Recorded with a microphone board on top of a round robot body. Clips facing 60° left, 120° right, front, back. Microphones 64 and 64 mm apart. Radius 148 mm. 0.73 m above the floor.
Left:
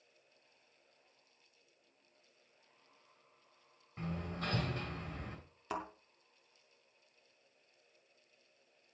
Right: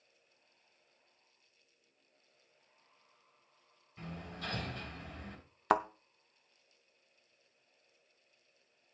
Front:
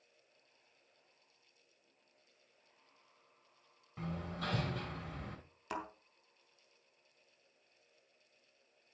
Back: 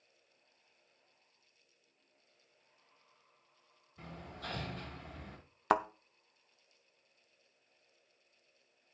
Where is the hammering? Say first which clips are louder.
Left 4 dB, front 6 dB; 5° left, 7 m.